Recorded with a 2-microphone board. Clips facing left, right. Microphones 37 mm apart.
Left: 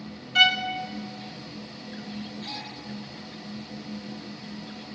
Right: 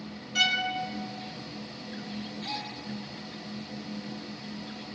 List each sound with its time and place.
0.3 s a violin: 35° left (ahead or behind), 2 m
2.4 s a gasp: 35° right (ahead or behind), 6 m